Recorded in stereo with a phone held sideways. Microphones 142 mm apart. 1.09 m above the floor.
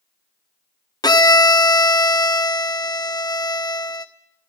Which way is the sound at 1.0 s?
30° left (ahead or behind).